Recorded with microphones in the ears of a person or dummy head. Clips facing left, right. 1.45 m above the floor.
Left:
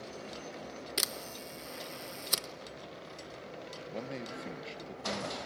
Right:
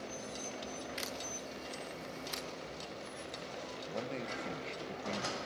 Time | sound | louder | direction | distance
1.0 | a camera shutter | left 1 dB | 65° left (ahead or behind) | 1.2 m
3.9 | a man speaking | even | 10° left (ahead or behind) | 1.4 m